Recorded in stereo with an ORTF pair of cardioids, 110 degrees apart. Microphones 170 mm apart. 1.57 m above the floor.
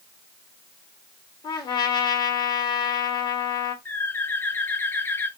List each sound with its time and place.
1.4 s a trumpet: 25° left, 1.4 m
3.9 s a bird: 10° left, 0.8 m